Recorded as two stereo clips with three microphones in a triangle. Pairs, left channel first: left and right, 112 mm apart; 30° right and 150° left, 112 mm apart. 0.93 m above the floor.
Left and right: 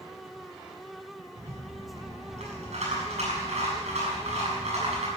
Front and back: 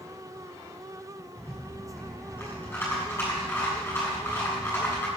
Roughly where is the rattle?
Right.